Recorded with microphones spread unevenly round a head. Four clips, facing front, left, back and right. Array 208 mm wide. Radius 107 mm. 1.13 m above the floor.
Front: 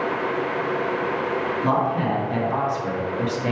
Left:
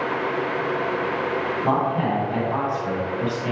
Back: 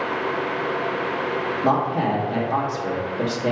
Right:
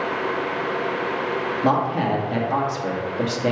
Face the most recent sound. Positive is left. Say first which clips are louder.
# right 2 dB, back 2 dB
turn(degrees=-80)